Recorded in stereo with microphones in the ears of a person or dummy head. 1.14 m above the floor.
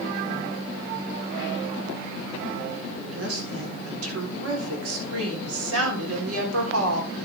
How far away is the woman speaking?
About 3.5 m.